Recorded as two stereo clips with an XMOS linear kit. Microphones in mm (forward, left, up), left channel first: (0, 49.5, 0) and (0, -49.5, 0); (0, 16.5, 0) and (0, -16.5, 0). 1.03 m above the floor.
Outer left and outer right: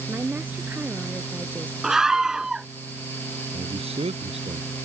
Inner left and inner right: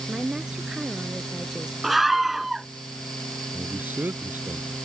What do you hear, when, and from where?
0.1 s a woman speaking: 20° right (ahead or behind)
1.8 s a scream: 5° right (ahead or behind)
3.5 s a man speaking: 85° right